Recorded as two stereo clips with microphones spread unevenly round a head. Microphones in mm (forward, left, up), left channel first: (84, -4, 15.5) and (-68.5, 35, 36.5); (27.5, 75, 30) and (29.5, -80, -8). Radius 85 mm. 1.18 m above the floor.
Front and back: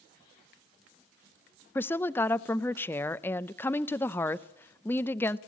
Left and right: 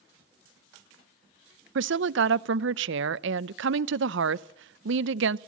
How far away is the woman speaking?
About 0.6 m.